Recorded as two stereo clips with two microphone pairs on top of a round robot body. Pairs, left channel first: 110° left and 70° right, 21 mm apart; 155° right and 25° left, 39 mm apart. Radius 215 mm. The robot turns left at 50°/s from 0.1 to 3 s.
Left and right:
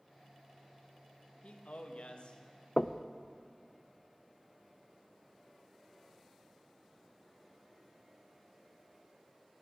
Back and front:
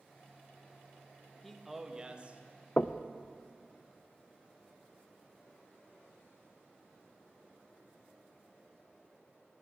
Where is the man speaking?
125° left, 1.3 m; by 2.7 s 60° left, 1.3 m.